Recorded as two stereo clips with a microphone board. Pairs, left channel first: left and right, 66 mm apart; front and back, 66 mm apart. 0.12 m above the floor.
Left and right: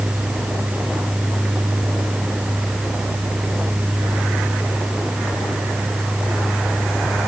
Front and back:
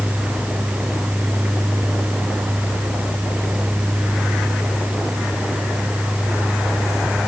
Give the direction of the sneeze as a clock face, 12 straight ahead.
No sneeze in this recording.